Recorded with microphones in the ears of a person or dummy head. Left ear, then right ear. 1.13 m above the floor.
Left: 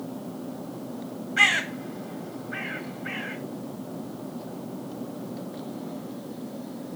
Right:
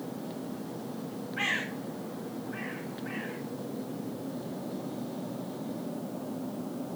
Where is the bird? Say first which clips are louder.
Left 10 dB; 70° left (ahead or behind), 2 m.